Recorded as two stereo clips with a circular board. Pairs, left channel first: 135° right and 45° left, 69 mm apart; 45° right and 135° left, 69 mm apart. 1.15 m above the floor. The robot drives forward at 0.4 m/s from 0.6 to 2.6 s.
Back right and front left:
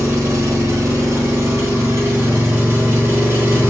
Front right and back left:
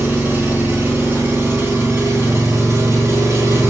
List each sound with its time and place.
0.0 s an engine running: 75° left, 2.5 m; by 3.7 s 90° left, 2.5 m